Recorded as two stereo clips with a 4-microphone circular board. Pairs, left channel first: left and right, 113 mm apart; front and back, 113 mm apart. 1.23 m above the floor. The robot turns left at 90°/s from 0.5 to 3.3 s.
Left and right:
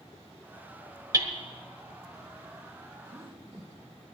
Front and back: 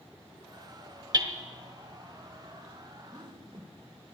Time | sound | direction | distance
1.1 | hammering | 140° right | 1.4 m
3.1 | a whoosh | 120° right | 2.0 m